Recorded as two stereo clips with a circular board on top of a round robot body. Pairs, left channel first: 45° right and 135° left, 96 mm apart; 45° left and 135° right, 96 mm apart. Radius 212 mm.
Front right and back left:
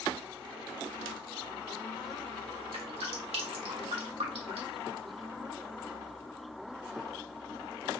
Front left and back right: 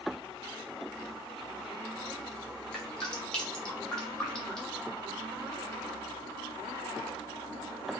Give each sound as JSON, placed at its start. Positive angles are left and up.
{"t": 2.7, "sound": "dripping", "azimuth_deg": 125, "distance_m": 1.2}